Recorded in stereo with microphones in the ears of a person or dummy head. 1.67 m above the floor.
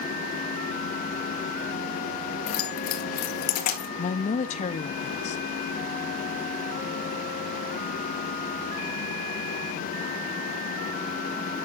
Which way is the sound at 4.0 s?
30° left (ahead or behind).